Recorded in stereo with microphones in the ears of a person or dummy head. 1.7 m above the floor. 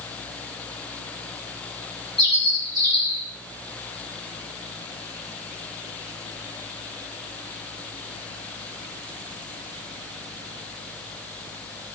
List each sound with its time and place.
2.2 s a bird: 30° right (ahead or behind), 3 m